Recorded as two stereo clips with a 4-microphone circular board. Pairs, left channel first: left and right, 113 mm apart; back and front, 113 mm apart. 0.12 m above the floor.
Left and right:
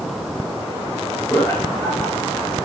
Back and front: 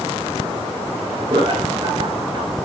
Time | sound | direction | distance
1.3 | laughter | 30° left | 1.6 m